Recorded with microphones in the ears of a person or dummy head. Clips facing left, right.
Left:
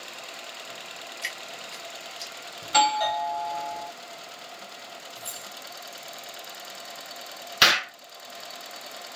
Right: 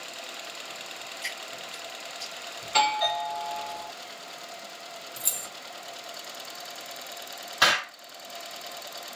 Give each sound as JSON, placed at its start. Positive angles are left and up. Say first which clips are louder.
{"t": 1.2, "sound": "dripping", "louder": "even", "side_deg": 60, "distance_m": 1.7}
{"t": 2.6, "sound": "a doorbell", "louder": "left 3 dB", "side_deg": 65, "distance_m": 1.4}
{"t": 5.2, "sound": "keys jangling", "louder": "even", "side_deg": -45, "distance_m": 0.5}
{"t": 7.6, "sound": "an explosion", "louder": "left 1 dB", "side_deg": 30, "distance_m": 0.6}